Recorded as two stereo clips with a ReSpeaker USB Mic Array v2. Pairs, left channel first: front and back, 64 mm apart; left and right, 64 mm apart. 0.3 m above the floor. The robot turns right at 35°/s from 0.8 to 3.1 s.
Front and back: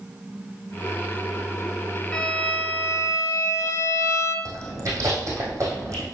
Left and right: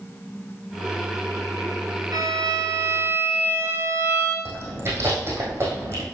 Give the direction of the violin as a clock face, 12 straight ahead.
3 o'clock.